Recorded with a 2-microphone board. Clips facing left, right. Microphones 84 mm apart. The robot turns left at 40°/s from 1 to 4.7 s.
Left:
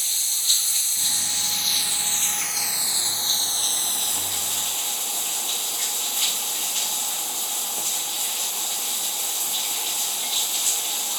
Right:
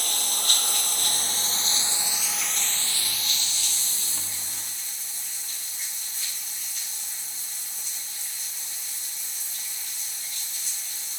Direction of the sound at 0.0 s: 125° right.